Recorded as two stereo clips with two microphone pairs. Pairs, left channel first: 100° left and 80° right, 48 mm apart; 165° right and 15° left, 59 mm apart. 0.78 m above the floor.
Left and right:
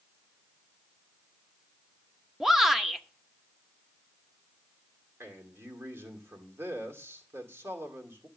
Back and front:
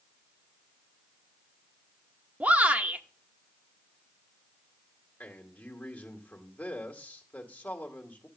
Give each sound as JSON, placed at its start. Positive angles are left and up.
{"t": 2.4, "sound": "a shout", "azimuth_deg": -10, "distance_m": 0.8}
{"t": 5.2, "sound": "a man speaking", "azimuth_deg": -105, "distance_m": 2.0}